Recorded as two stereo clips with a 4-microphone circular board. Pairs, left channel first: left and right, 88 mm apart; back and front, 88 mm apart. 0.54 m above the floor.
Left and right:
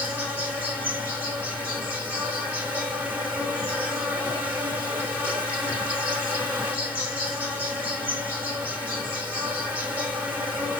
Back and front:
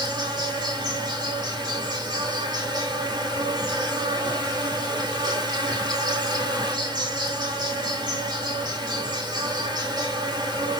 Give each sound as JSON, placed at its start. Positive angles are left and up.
{"t": 0.0, "sound": "an insect", "azimuth_deg": -20, "distance_m": 2.0}